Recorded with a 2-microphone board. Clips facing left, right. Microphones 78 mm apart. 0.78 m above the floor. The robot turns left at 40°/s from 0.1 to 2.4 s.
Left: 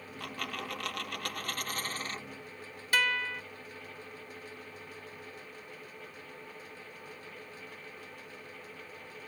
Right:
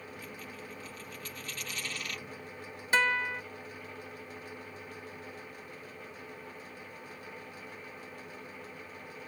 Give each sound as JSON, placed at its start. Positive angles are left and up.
{"t": 0.2, "sound": "a dropped coin", "azimuth_deg": 110}
{"t": 2.9, "sound": "a guitar", "side_deg": -25}